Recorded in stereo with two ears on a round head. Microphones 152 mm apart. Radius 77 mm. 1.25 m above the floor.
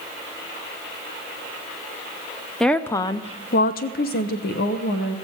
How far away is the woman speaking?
About 0.6 m.